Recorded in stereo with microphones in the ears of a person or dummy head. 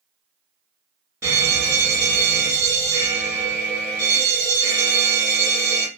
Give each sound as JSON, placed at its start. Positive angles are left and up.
{"t": 1.2, "sound": "a fire alarm", "side_deg": -15, "distance_m": 1.1}